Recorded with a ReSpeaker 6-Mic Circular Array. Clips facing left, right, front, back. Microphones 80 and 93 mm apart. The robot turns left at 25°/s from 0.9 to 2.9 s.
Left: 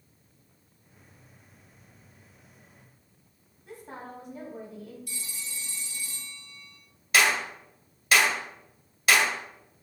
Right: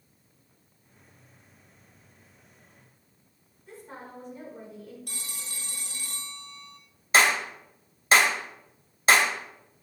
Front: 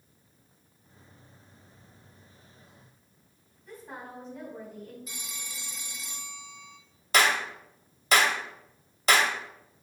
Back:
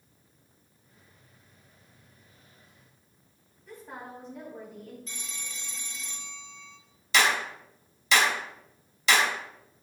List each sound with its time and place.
3.7 s a woman speaking: 90° left, 4 m
5.1 s a phone ringing: 80° right, 1.0 m
7.1 s a clap: 35° right, 1.6 m